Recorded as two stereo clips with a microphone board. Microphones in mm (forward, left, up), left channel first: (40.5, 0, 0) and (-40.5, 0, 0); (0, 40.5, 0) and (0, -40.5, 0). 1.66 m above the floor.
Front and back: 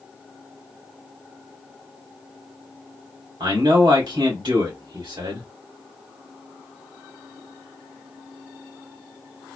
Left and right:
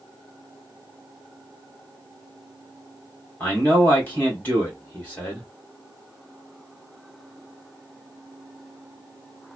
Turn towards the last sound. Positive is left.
turn(degrees=160)